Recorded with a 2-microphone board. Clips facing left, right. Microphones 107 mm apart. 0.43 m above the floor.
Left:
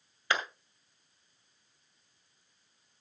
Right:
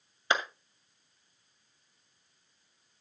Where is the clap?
20° right (ahead or behind), 1.9 m.